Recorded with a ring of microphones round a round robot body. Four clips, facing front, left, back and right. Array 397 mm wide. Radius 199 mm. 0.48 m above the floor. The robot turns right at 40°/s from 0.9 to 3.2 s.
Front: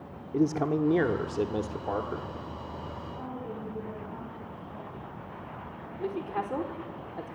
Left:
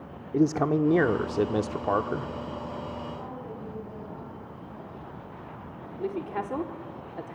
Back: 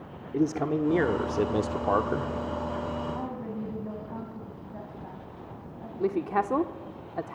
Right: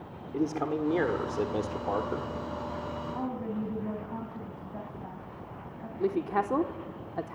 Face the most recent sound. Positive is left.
turn(degrees=-155)